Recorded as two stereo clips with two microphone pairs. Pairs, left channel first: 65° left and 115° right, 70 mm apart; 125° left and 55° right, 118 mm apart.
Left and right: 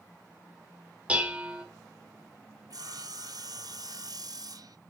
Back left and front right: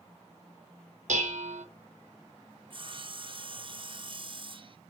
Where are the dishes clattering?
45° right, 1.5 m.